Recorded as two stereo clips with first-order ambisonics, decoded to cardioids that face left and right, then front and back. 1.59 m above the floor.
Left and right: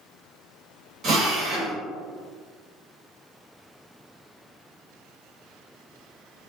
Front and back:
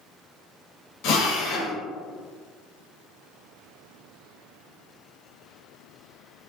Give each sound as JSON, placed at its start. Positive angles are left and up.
{"t": 1.0, "sound": "a drill", "azimuth_deg": -30, "distance_m": 1.0}